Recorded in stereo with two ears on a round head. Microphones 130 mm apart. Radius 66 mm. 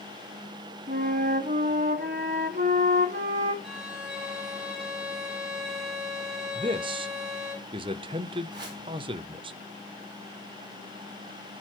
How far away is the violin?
About 6.5 m.